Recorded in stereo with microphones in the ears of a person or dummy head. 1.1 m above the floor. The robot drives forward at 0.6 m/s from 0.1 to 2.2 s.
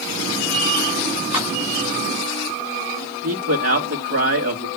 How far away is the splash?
About 5 m.